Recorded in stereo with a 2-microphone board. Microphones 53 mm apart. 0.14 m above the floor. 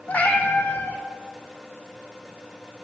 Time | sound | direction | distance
0.1 | a cat meowing | 30° left (ahead or behind) | 1.1 m